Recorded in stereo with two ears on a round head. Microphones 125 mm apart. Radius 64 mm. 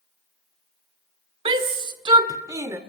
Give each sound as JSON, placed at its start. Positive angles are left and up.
{"t": 1.4, "sound": "a shout", "side_deg": -35, "distance_m": 1.6}